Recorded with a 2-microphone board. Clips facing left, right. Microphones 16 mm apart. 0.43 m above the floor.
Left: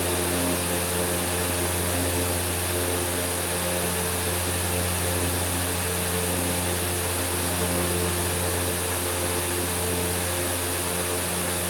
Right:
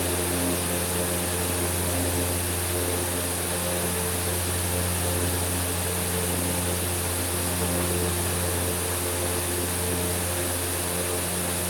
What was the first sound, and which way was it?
Only background noise.